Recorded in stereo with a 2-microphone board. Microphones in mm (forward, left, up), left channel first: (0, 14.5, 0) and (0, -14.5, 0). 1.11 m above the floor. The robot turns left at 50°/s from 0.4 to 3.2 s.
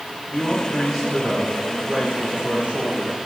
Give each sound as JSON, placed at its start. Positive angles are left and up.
{"t": 0.3, "sound": "a man speaking", "azimuth_deg": 25, "distance_m": 5.0}